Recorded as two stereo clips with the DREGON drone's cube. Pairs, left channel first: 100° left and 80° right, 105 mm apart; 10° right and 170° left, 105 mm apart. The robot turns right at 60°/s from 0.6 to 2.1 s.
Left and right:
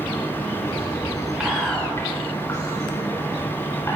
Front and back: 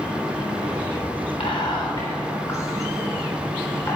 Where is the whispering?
5° left, 3.5 m; by 4.0 s 45° left, 3.5 m.